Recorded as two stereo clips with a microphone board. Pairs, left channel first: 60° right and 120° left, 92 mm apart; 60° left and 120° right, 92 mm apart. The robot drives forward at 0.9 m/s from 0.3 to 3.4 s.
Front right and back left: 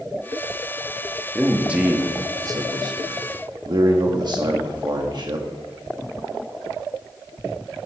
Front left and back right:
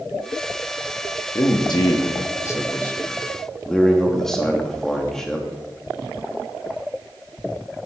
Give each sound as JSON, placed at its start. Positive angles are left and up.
{"t": 1.4, "sound": "a man speaking", "azimuth_deg": 35, "distance_m": 1.4}